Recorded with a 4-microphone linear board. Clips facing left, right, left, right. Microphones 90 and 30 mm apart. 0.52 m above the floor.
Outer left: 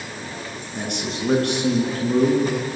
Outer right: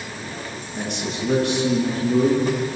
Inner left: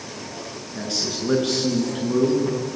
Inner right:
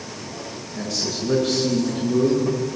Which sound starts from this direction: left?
A man speaking, at 0.7 s.